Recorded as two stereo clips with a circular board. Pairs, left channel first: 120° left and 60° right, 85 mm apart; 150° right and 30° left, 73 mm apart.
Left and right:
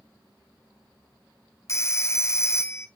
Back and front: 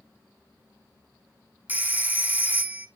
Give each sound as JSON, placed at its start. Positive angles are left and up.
{"t": 1.7, "sound": "a phone ringing", "azimuth_deg": 85, "distance_m": 0.7}